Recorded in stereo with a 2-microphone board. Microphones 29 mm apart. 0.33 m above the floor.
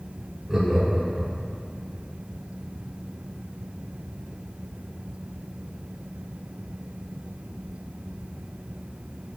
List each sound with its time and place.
0.5 s laughter: 20° right (ahead or behind), 1.0 m